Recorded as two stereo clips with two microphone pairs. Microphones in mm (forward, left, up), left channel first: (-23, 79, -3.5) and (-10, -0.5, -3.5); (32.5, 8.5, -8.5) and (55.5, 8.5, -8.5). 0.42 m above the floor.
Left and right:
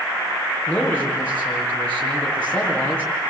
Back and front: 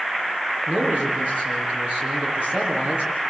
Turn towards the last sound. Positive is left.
turn(degrees=25)